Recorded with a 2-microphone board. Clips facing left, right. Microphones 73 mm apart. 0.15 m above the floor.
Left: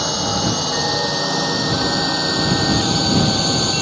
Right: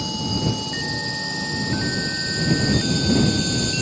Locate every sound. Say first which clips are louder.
0.0 s a drone: left 4 dB; 80° left; by 3.8 s 65° left (ahead or behind)